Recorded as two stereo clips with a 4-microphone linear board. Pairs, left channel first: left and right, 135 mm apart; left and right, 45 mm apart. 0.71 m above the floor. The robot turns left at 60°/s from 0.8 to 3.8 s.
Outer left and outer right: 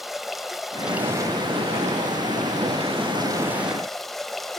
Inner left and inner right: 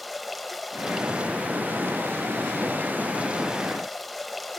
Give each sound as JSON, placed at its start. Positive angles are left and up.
{"t": 0.0, "sound": "running water", "azimuth_deg": 0, "distance_m": 0.9}